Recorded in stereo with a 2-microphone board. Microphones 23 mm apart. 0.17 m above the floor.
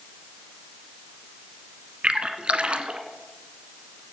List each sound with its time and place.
2.0 s a splash: 50° right (ahead or behind), 1.1 m